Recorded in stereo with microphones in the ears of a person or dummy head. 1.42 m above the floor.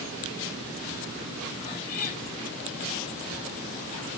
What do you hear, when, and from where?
1.6 s a cat meowing: 40° left (ahead or behind), 1.9 m